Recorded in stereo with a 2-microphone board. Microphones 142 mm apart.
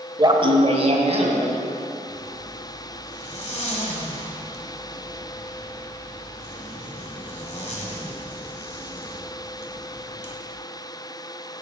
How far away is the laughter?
About 1.1 m.